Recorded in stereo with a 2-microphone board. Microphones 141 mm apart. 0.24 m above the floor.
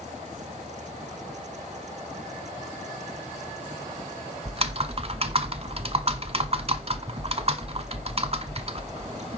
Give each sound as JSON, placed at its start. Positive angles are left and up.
{"t": 4.5, "sound": "typing on a keyboard", "side_deg": -45, "distance_m": 0.7}